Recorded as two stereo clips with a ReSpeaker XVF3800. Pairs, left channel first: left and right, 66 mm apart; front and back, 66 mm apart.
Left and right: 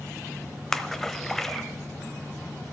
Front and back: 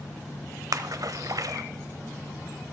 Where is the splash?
175° left, 0.7 m.